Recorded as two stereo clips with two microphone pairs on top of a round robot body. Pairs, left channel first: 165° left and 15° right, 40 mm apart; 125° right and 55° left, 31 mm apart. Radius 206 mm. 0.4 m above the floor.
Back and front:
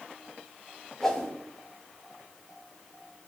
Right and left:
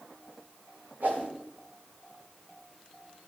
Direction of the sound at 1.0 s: 90° left.